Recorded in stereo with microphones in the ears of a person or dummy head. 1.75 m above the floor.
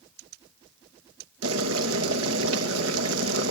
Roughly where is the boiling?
Right.